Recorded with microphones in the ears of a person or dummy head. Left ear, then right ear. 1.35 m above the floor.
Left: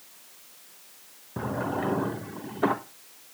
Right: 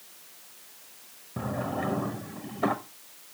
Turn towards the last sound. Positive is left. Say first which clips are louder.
# left 2 dB
turn(degrees=10)  # may be behind; listen again after turning